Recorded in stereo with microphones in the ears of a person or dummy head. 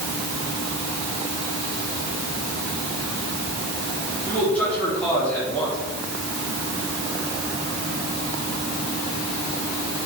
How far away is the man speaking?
About 4.5 m.